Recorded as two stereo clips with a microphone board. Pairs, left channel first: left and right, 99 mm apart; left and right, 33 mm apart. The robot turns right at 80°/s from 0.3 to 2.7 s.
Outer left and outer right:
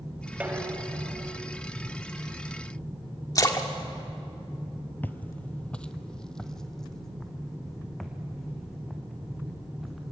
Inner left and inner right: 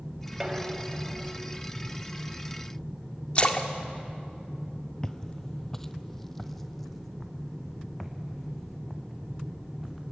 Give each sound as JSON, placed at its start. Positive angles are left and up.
{"t": 0.4, "sound": "dishes clattering", "azimuth_deg": -165, "distance_m": 2.0}
{"t": 3.4, "sound": "a splash", "side_deg": 40, "distance_m": 1.7}
{"t": 5.0, "sound": "footsteps", "side_deg": 15, "distance_m": 0.8}